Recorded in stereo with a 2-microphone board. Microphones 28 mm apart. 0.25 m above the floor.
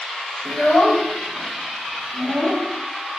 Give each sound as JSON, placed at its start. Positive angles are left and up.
{"t": 0.5, "sound": "a child speaking", "side_deg": 30, "distance_m": 0.6}